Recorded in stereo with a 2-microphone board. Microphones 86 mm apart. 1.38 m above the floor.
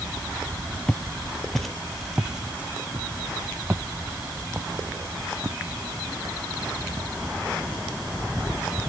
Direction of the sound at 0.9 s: 15° left (ahead or behind).